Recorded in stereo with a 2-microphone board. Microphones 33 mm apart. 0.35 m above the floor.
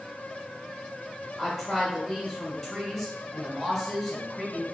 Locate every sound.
1.4 s a woman speaking: centre (ahead or behind), 1.2 m